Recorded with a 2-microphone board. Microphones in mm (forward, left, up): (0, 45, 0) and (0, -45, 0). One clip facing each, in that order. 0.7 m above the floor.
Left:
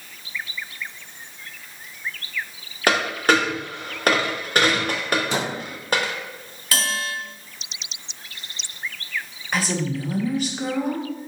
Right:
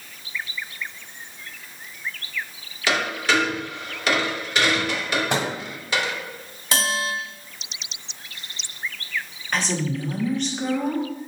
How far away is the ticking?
No ticking in this recording.